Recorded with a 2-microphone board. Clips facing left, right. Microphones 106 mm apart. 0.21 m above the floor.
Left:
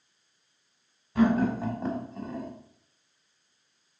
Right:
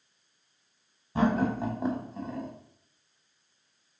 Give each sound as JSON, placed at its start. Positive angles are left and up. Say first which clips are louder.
{"t": 1.1, "sound": "laughter", "louder": "left 2 dB", "side_deg": -25, "distance_m": 1.3}